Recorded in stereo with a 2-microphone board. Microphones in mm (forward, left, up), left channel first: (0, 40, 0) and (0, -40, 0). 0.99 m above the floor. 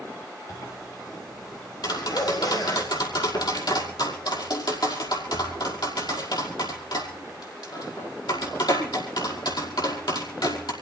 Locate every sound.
0.5 s a zipper: 60° left (ahead or behind), 4 m
1.8 s tapping: 65° left (ahead or behind), 5 m